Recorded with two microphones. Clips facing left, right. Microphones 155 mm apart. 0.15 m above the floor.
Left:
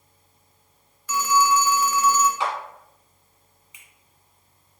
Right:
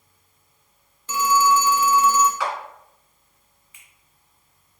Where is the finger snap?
20° left (ahead or behind), 1.0 m.